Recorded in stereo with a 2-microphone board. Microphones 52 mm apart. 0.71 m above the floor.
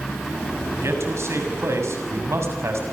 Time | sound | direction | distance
0.8 | a man speaking | 60° right (ahead or behind) | 6 m